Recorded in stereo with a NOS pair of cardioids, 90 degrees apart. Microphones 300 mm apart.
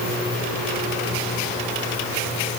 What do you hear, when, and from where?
Only background noise.